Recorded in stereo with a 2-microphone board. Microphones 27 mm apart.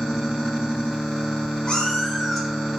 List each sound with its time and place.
1.7 s a cat meowing: 35° left (ahead or behind), 0.7 m; by 2.8 s 20° right (ahead or behind), 0.7 m